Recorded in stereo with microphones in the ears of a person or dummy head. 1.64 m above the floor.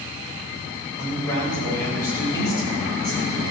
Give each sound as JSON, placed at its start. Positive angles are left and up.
{"t": 1.0, "sound": "a man speaking", "side_deg": 20, "distance_m": 8.5}